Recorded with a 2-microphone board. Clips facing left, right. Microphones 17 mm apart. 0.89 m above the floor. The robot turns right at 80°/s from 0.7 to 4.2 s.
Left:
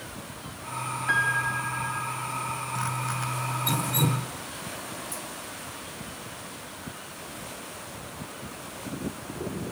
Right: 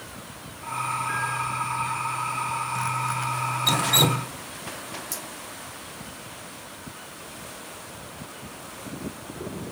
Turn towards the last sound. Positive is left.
turn(degrees=-75)  # may be behind; listen again after turning